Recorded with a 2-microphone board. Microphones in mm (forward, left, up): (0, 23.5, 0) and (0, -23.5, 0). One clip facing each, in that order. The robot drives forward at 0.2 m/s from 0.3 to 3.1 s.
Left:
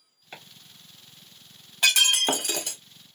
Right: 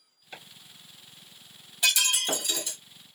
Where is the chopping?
35° left (ahead or behind), 1.6 m.